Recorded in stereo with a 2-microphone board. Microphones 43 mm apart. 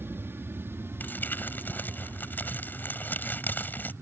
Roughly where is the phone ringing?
I don't hear a phone ringing.